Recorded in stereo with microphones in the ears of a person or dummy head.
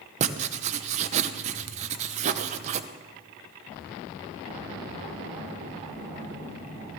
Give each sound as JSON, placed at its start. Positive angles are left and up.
{"t": 0.2, "sound": "writing", "side_deg": -40, "distance_m": 0.6}